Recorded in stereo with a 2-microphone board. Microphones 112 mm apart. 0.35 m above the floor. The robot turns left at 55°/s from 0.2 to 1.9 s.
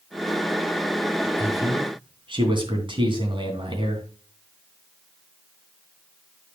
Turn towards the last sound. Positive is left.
turn(degrees=-50)  # may be behind; listen again after turning